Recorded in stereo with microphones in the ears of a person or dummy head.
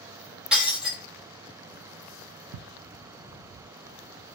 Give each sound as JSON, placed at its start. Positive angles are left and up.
{"t": 0.5, "sound": "breaking glass", "side_deg": -5, "distance_m": 1.0}
{"t": 2.5, "sound": "ticking", "side_deg": -70, "distance_m": 0.5}